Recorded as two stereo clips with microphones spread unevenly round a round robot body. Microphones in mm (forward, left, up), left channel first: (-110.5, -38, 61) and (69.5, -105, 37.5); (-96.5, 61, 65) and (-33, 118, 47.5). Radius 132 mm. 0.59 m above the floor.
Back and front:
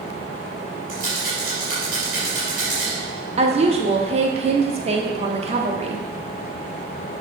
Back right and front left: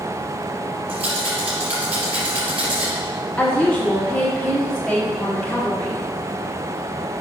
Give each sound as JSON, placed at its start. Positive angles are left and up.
{"t": 0.9, "sound": "a rattle", "azimuth_deg": 35, "distance_m": 3.0}
{"t": 3.4, "sound": "a woman speaking", "azimuth_deg": -50, "distance_m": 1.2}